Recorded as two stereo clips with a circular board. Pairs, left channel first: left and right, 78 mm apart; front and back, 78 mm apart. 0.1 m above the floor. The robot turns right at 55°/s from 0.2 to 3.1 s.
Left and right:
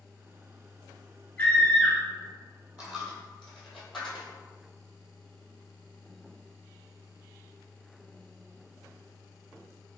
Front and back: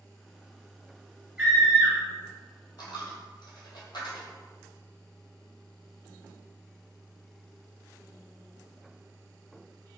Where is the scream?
115° left, 1.5 m; by 2.0 s 150° left, 1.5 m.